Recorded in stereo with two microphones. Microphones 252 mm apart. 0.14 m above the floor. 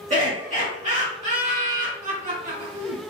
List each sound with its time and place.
0.1 s laughter: 30° right (ahead or behind), 1.8 m